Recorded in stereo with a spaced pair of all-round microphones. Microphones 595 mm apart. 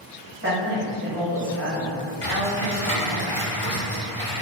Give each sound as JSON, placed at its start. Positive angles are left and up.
{"t": 0.4, "sound": "a woman speaking", "side_deg": -20, "distance_m": 1.4}
{"t": 2.2, "sound": "typing on a keyboard", "side_deg": 60, "distance_m": 1.4}